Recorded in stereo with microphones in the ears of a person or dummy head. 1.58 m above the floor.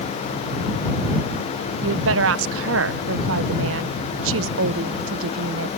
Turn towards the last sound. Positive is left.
turn(degrees=-70)  # may be behind; listen again after turning